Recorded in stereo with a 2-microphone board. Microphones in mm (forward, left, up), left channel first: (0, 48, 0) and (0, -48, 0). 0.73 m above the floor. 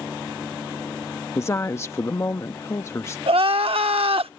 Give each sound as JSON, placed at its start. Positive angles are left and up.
{"t": 1.4, "sound": "a woman speaking", "side_deg": 30}
{"t": 3.3, "sound": "crying", "side_deg": -85}